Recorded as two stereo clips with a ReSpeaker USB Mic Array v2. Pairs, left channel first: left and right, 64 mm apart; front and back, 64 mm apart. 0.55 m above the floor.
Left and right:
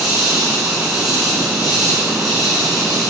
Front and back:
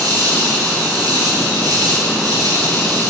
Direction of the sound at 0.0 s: 170° right.